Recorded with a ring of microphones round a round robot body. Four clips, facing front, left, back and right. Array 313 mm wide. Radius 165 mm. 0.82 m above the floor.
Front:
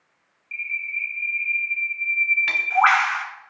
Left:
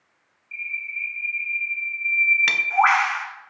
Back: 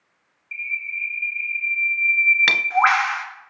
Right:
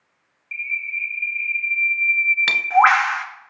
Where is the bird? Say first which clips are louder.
Right 4 dB, even; 100° right, 1.7 m.